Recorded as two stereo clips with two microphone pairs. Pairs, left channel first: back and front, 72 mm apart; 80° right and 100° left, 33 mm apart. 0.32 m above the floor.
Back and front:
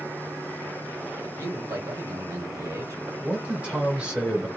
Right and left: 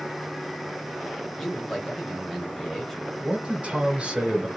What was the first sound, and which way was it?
A man speaking, 5° right.